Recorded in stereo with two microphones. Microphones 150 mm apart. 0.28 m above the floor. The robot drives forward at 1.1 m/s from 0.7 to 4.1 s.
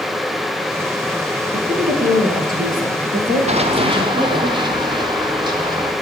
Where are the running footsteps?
45° right (ahead or behind), 1.9 m; by 5.9 s 25° right (ahead or behind), 5 m.